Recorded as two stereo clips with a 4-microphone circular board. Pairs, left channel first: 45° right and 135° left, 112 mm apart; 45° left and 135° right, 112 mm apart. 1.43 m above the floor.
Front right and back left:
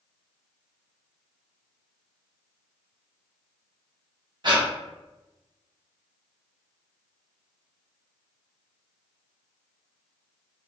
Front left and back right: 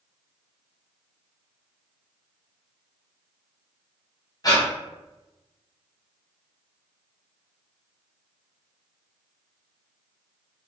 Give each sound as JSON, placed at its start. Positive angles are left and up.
{"t": 4.4, "sound": "breathing", "azimuth_deg": 95, "distance_m": 0.7}